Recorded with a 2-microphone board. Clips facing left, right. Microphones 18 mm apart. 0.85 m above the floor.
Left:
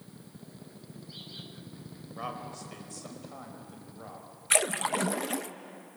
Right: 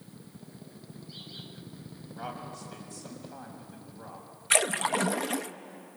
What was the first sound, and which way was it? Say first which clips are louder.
A man speaking: left 1 dB; 40° left (ahead or behind).